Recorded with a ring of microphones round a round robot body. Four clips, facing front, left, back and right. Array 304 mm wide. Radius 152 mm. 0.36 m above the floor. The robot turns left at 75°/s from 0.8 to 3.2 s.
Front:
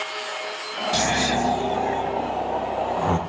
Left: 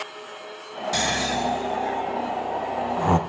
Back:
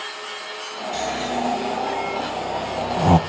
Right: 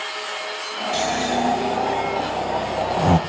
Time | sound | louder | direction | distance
0.9 | snoring | right 4 dB, front 2 dB | 25° left | 1.4 m